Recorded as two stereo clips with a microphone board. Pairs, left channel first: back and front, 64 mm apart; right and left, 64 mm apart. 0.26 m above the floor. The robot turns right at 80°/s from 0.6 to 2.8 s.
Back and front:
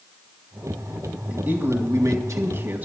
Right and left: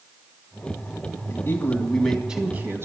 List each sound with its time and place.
1.3 s a man speaking: 65° right, 1.8 m; by 2.9 s 55° left, 1.8 m